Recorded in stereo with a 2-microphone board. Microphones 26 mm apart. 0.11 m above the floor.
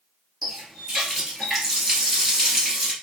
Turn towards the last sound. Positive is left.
turn(degrees=-10)  # may be behind; listen again after turning